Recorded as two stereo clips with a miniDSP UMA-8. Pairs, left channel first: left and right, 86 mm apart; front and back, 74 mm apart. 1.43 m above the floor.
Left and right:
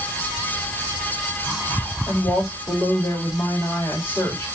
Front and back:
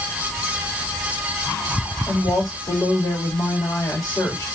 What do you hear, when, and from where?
2.1 s a woman speaking: 35° left, 4 m